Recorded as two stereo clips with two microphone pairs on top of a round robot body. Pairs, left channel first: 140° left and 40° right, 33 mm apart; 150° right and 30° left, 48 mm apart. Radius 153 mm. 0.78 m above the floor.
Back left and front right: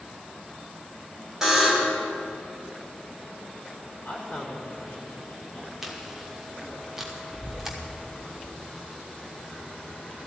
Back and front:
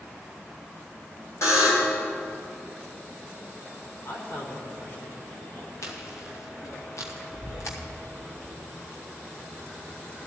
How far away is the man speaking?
About 3.5 m.